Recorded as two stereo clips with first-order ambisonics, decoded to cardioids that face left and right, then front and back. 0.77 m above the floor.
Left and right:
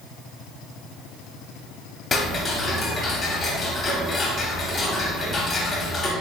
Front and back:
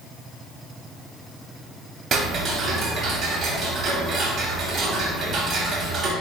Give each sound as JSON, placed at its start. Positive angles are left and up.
{"t": 2.1, "sound": "ticking", "azimuth_deg": 145, "distance_m": 0.6}